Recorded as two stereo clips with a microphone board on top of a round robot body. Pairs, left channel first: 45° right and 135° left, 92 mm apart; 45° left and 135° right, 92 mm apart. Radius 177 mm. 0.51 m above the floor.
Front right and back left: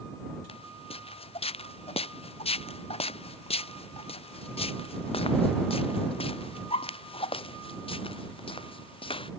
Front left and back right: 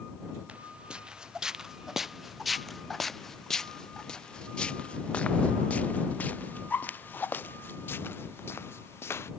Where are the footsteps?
60° right; by 9.3 s 20° right.